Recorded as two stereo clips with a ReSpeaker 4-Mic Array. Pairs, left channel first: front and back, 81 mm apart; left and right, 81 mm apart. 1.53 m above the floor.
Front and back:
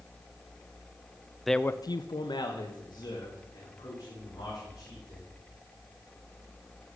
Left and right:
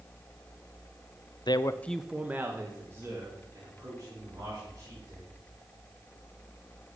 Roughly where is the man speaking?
Left.